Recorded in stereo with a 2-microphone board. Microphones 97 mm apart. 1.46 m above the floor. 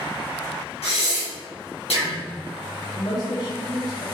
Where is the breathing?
85° left, 1.9 m.